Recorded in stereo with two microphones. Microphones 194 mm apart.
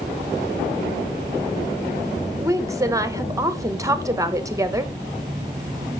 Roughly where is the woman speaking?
Centre.